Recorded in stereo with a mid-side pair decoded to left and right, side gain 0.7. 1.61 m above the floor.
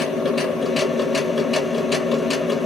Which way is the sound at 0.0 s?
30° left.